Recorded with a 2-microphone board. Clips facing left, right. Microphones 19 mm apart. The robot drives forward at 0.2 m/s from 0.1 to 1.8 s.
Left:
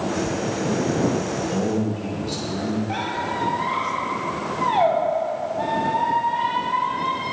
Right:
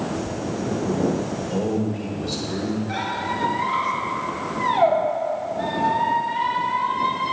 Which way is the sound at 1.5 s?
45° right (ahead or behind).